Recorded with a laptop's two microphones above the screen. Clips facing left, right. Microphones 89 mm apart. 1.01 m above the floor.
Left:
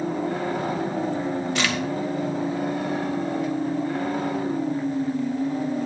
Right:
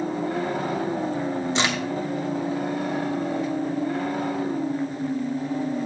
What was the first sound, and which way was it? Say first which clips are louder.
A crack: right 1 dB; 25° right (ahead or behind).